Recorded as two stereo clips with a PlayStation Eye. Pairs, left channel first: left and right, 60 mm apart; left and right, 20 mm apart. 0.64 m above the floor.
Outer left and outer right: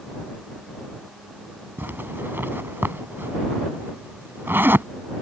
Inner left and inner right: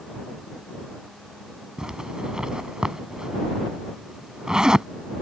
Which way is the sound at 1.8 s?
35° right (ahead or behind).